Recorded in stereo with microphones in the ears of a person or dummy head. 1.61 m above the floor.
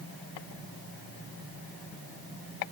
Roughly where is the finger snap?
I don't hear a finger snap.